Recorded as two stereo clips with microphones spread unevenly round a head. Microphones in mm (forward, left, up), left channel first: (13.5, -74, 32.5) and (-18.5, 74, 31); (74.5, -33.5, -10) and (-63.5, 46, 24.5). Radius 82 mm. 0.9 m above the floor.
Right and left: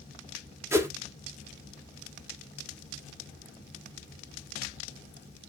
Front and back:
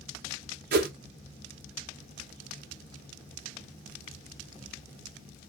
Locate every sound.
0.7 s a whoosh: 170° left, 1.0 m